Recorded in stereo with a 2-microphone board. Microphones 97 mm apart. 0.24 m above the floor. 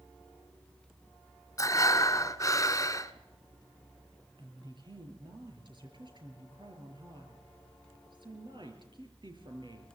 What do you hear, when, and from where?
1.6 s breathing: 35° left (ahead or behind), 1.1 m
4.4 s a woman speaking: 55° right (ahead or behind), 5.5 m